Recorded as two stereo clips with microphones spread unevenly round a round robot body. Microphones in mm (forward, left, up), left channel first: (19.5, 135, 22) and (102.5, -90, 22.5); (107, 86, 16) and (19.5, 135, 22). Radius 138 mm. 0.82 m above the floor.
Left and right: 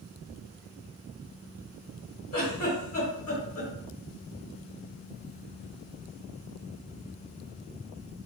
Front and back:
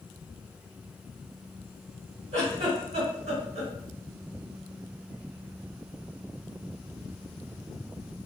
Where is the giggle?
175° left, 1.2 m.